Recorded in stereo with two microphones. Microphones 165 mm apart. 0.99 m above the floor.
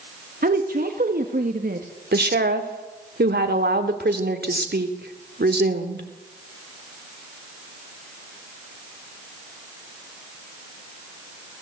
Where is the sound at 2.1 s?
80° right, 2.5 m.